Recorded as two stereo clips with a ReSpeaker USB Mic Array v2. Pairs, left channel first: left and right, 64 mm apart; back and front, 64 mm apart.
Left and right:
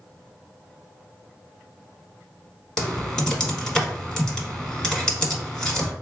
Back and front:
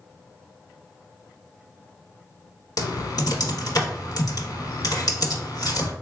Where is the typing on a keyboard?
170° left, 1.0 m.